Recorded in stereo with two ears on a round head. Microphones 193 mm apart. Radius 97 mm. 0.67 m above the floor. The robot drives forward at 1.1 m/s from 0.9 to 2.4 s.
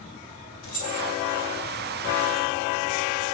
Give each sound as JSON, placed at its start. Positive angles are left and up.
{"t": 0.6, "sound": "keys jangling", "side_deg": 65, "distance_m": 1.7}